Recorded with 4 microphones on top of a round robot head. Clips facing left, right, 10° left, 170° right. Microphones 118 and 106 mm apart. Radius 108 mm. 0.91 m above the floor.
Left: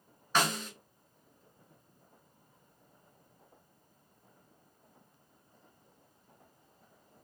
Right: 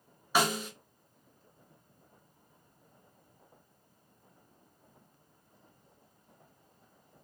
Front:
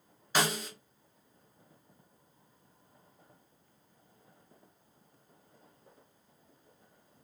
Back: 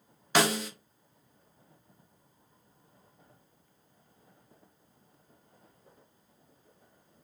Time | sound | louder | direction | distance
0.3 | a snare drum | right 2 dB, back 5 dB | 170° right | 0.5 m